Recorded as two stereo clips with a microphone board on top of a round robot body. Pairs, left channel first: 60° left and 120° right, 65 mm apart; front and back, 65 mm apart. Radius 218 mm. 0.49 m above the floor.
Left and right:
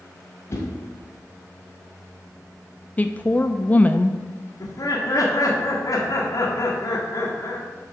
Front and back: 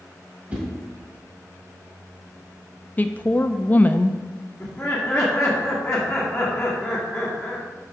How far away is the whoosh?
About 1.6 m.